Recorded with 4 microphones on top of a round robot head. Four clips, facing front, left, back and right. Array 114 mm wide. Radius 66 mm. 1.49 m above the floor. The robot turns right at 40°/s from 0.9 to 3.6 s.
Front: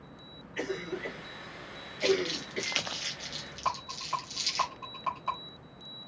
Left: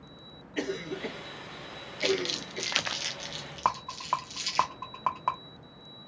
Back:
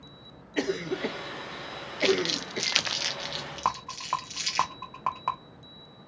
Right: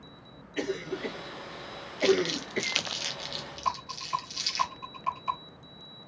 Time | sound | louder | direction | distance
0.6 | a cough | right 1 dB, back 6 dB | straight behind | 0.9 m
2.0 | crumpling | right 5 dB, back 2 dB | 155° left | 0.8 m
3.6 | a rattle | left 3 dB, back 3 dB | 125° left | 1.2 m